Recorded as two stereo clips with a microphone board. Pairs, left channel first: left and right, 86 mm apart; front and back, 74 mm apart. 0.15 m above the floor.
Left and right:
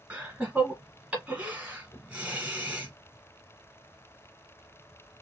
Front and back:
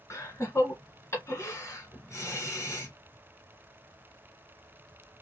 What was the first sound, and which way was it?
Laughter, 25° right.